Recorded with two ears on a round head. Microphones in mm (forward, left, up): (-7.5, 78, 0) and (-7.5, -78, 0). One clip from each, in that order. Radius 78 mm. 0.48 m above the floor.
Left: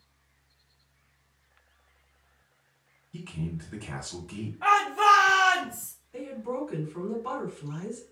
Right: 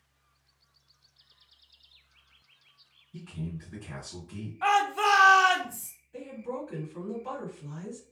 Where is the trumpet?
No trumpet in this recording.